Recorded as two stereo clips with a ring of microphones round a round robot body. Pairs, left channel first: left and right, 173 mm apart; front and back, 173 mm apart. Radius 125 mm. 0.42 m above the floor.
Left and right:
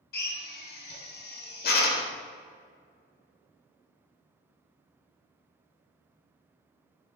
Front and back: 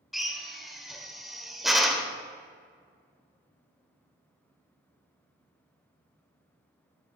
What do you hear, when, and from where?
0.1 s a drill: 90° left, 1.1 m